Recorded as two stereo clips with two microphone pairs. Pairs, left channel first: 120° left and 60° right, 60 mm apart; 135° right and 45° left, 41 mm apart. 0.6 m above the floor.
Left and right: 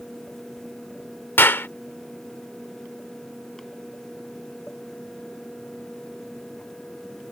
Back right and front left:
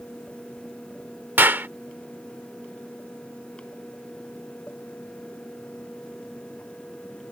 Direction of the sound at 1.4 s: 75° left.